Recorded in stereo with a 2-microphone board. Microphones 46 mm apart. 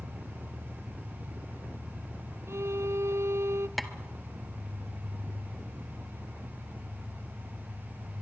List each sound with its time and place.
0.0 s an engine running: 80° right, 6 m
2.5 s a violin: 65° right (ahead or behind), 0.8 m
3.8 s tapping: centre (ahead or behind), 1.3 m